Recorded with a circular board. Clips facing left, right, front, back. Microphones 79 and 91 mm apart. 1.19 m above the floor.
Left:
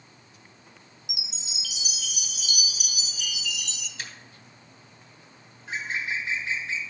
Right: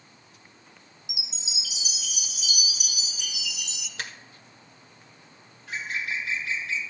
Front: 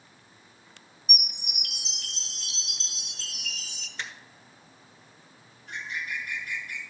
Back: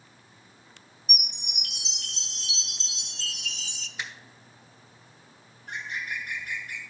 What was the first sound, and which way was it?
A chime, 85° left.